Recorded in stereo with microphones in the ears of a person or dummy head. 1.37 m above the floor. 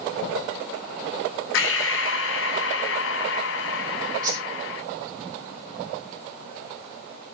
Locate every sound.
1.5 s breathing: 65° left (ahead or behind), 0.8 m
4.2 s a whoosh: 25° right (ahead or behind), 3 m